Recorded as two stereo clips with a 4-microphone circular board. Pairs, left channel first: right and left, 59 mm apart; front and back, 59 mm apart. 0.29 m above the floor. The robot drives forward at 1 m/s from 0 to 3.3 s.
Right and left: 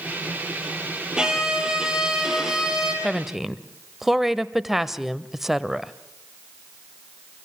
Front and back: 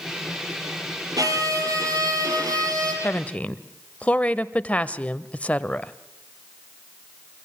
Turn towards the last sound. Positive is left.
turn(degrees=15)